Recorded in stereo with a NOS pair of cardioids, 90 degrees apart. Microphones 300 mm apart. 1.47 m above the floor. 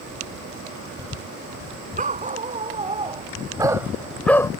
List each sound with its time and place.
2.0 s a dog barking: 25° right; by 4.5 s 15° left